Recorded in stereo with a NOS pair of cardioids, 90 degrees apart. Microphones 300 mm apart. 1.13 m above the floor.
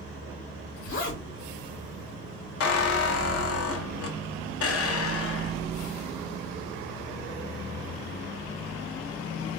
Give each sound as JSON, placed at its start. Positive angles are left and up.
{"t": 0.8, "sound": "a zipper", "azimuth_deg": 45, "distance_m": 1.6}
{"t": 2.6, "sound": "a squeak", "azimuth_deg": 50, "distance_m": 0.7}